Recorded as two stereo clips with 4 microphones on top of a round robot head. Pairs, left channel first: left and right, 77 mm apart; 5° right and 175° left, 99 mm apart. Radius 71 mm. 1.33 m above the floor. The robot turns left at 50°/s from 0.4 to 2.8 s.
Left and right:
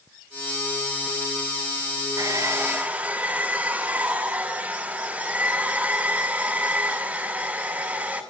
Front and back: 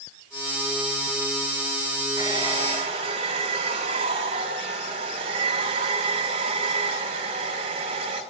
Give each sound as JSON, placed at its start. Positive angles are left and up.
{"t": 2.2, "sound": "a hair dryer", "azimuth_deg": -130, "distance_m": 6.5}